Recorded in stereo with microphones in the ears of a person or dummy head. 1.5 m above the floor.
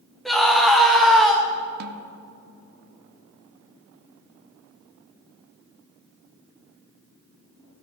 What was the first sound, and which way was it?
A scream, centre (ahead or behind).